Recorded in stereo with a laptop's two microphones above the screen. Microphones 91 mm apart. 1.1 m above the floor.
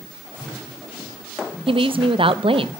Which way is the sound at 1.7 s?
70° right (ahead or behind).